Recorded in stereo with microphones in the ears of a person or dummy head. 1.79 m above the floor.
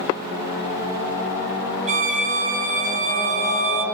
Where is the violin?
40° right (ahead or behind), 1.9 m.